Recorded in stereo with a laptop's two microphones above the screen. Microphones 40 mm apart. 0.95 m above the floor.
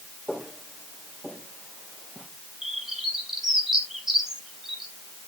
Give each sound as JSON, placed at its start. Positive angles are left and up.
{"t": 0.3, "sound": "footsteps", "side_deg": -10, "distance_m": 5.0}
{"t": 2.6, "sound": "a bird", "side_deg": -5, "distance_m": 3.0}